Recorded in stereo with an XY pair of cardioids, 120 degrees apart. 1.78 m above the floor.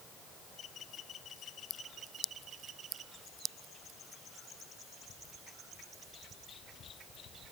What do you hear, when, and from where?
Only background noise.